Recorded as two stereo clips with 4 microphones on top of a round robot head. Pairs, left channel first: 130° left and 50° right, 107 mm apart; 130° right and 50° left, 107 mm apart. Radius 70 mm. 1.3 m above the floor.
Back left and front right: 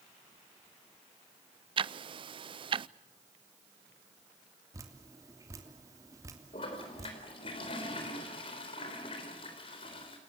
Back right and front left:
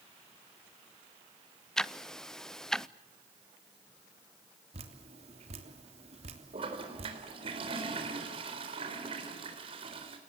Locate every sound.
1.8 s ticking: 50° right, 0.6 m
4.7 s dripping: 15° left, 3 m
6.5 s a toilet flushing: 85° left, 4 m